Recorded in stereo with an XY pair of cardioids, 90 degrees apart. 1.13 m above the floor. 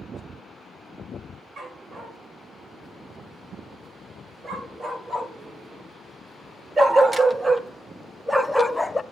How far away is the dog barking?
About 4 m.